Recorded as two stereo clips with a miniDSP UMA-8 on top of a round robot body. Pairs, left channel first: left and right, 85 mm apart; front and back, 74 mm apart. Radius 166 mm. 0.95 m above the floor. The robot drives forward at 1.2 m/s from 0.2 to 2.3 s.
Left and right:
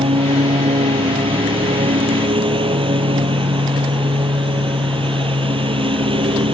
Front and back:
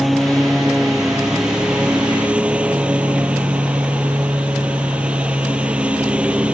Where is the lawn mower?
90° right; by 6.5 s 105° right.